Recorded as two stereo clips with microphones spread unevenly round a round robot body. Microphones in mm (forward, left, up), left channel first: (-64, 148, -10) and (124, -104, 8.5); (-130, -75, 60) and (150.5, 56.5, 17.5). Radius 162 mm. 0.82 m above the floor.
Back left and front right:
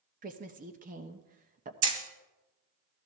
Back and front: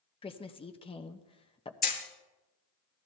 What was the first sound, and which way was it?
A woman speaking, 85° right.